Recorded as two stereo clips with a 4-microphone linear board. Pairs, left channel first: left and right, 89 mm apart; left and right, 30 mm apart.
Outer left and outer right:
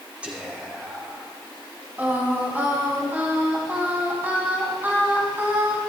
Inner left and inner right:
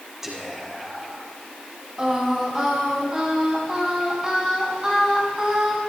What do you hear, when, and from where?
0.2 s whispering: 10° right (ahead or behind), 5.5 m
2.0 s singing: 20° right (ahead or behind), 3.5 m